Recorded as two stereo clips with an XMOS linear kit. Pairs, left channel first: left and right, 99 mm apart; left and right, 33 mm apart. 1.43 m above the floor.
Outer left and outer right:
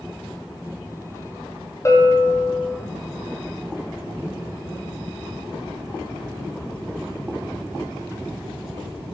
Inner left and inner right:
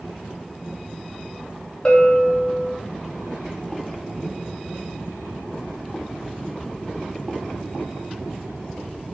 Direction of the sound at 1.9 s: 30° left (ahead or behind).